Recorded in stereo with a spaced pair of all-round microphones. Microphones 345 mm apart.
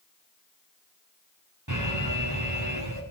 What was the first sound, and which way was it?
An alarm, 60° right (ahead or behind).